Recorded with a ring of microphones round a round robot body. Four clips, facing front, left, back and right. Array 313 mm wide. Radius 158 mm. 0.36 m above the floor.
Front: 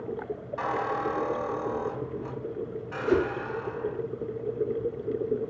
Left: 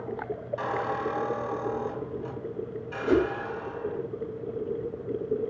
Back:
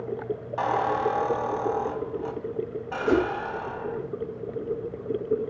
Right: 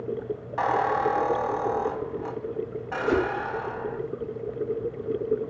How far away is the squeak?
About 1.5 m.